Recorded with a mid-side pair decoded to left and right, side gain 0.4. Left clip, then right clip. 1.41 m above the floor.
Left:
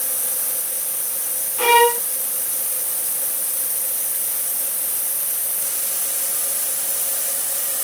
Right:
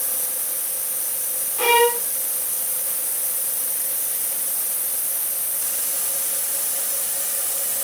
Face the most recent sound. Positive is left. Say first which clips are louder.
# left 3 dB
turn(degrees=5)